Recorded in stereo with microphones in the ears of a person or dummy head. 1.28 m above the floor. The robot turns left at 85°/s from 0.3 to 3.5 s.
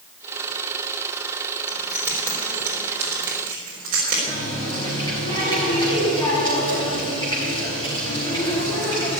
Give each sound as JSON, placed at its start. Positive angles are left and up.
{"t": 1.7, "sound": "keys jangling", "side_deg": 20, "distance_m": 3.5}
{"t": 4.3, "sound": "a running tap", "side_deg": 20, "distance_m": 4.0}